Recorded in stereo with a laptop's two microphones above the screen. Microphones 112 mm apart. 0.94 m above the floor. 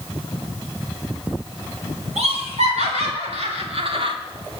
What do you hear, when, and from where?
2.2 s laughter: 80° right, 3 m; by 4.2 s 45° right (ahead or behind), 1.1 m